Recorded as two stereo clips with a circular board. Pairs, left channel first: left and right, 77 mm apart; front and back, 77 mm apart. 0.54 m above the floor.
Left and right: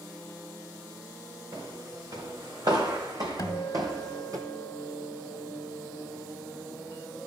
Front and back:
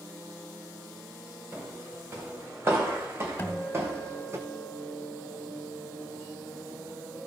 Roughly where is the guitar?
Ahead left.